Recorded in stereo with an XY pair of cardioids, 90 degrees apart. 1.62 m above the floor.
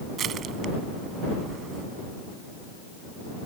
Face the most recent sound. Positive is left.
turn(degrees=-70)